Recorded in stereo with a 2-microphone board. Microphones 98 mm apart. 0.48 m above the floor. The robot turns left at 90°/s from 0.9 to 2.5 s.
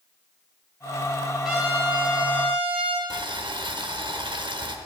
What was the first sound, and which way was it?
A trumpet, straight ahead.